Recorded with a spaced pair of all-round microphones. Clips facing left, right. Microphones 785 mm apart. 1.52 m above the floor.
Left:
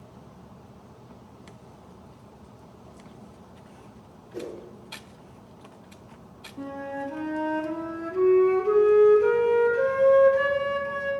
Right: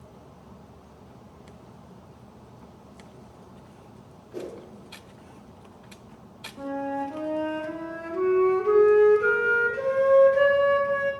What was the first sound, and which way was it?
A whoosh, 60° right (ahead or behind).